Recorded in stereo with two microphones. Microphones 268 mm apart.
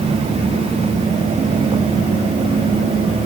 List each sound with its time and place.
Only background noise.